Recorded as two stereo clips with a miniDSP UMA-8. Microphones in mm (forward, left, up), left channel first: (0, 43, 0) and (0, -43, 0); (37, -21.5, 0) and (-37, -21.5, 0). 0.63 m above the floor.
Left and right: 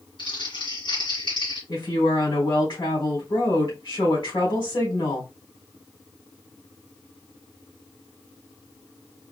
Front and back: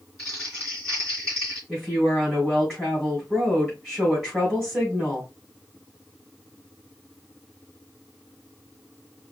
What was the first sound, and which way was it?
Crumpling, 85° left.